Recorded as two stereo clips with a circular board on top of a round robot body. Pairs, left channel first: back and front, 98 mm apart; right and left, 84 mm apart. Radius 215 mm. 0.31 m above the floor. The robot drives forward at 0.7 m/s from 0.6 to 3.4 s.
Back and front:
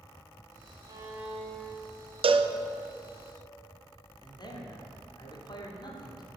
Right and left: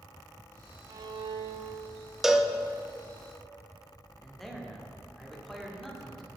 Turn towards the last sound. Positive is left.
turn(degrees=-175)